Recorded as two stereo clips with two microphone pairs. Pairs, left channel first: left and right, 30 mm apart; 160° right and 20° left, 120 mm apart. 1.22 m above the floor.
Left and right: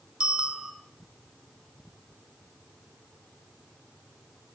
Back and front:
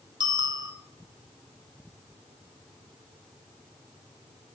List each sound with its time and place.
0.2 s a bicycle bell: 35° right, 4 m